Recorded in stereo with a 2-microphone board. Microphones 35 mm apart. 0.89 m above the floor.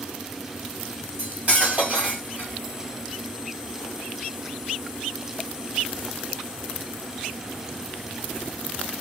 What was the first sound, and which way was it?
Cutlery clinking, 45° right (ahead or behind).